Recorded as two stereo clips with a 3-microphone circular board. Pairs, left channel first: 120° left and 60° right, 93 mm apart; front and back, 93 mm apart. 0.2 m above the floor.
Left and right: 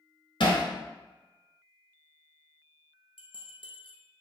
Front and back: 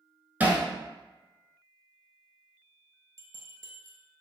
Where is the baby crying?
No baby crying in this recording.